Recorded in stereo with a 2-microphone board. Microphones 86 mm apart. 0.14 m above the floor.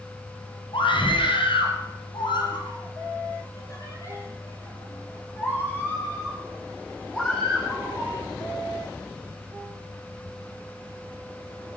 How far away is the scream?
About 3.5 m.